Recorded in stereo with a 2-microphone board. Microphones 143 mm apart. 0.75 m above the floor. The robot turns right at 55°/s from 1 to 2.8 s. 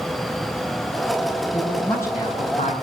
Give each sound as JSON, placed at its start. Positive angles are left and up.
{"t": 1.5, "sound": "a man speaking", "azimuth_deg": -10, "distance_m": 4.0}